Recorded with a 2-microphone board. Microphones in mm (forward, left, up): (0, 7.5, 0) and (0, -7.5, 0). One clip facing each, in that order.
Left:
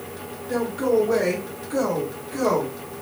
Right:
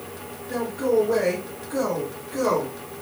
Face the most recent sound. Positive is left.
turn(degrees=0)  # may be behind; listen again after turning